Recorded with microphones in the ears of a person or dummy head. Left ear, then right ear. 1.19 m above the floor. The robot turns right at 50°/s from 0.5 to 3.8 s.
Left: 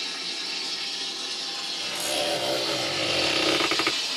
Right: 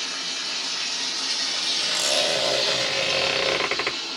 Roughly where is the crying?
No crying in this recording.